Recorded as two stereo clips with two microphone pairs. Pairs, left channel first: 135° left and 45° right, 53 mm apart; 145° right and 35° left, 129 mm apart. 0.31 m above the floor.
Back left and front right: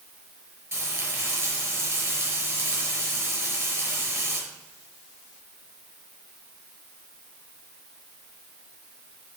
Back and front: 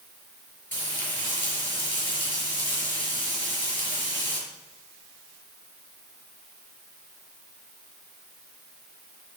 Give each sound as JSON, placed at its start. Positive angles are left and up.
{"t": 0.7, "sound": "frying", "azimuth_deg": -75, "distance_m": 5.5}